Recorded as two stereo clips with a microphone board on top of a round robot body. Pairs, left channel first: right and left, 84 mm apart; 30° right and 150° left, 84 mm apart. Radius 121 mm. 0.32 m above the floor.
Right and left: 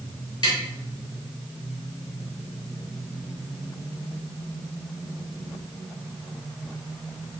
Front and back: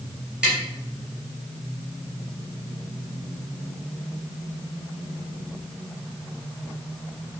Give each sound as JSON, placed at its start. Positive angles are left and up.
{"t": 0.4, "sound": "tapping", "azimuth_deg": -130, "distance_m": 2.0}